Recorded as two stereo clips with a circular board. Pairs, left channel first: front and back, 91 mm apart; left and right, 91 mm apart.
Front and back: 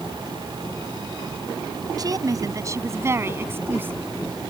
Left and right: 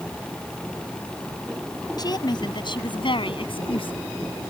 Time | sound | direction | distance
2.0 | a woman speaking | 135° left | ?